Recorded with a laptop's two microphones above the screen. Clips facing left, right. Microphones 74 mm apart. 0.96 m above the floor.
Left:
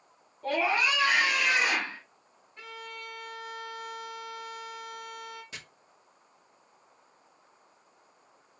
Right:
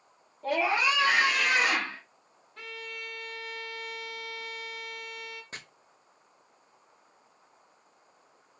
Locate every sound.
0.4 s a scream: 5° right (ahead or behind), 1.0 m; by 2.0 s 65° right (ahead or behind), 2 m
2.6 s a violin: 85° right, 1.1 m
5.5 s chopping: 40° right (ahead or behind), 0.7 m